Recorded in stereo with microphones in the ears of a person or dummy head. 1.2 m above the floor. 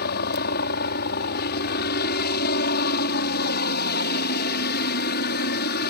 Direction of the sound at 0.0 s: 55° left (ahead or behind).